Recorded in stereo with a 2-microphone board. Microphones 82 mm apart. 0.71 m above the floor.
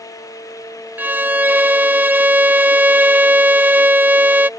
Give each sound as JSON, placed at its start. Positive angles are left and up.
{"t": 1.0, "sound": "a violin", "side_deg": -20}